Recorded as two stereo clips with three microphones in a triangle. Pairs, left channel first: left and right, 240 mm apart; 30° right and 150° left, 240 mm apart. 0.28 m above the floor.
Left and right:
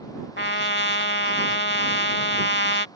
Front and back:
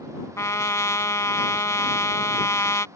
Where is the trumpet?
45° left.